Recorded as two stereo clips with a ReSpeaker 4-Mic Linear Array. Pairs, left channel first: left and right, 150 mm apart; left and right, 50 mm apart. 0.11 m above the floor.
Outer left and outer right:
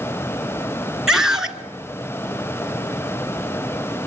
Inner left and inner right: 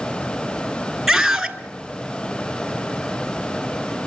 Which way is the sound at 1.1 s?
5° right (ahead or behind).